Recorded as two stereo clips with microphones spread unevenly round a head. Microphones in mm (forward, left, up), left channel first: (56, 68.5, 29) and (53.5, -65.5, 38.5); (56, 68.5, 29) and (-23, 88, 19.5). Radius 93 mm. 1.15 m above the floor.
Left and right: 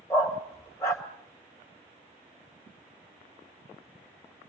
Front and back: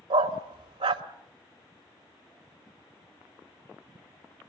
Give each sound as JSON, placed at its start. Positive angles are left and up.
{"t": 0.1, "sound": "a dog barking", "azimuth_deg": 165, "distance_m": 1.5}